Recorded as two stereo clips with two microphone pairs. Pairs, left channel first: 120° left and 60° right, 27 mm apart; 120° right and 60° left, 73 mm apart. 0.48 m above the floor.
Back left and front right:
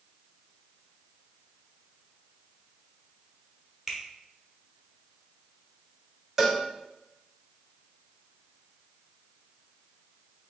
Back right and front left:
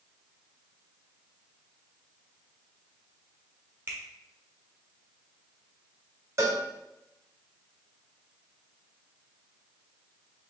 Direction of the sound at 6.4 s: 15° left.